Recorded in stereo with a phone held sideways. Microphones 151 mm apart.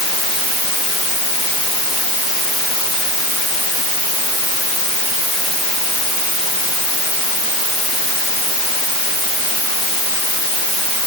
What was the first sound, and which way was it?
Only background noise.